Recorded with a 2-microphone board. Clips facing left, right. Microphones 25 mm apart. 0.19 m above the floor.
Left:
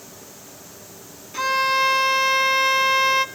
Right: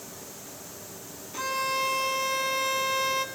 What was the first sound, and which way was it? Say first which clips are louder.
A violin: left 9 dB; 45° left (ahead or behind).